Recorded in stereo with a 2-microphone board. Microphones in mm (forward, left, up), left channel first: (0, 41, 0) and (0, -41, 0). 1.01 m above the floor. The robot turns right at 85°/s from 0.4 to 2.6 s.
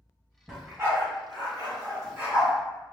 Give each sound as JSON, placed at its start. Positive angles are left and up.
{"t": 0.5, "sound": "a dog barking", "side_deg": -5, "distance_m": 1.8}